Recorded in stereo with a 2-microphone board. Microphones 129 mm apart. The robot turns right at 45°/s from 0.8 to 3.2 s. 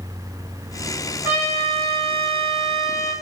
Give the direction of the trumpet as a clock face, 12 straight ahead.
5 o'clock.